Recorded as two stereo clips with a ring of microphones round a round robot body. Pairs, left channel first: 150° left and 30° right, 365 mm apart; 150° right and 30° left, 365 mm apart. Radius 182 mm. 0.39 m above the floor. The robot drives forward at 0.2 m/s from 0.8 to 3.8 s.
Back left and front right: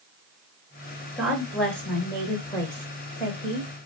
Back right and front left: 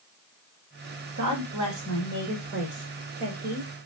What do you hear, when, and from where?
1.2 s a woman speaking: 60° left, 1.4 m; by 3.7 s 90° left, 1.3 m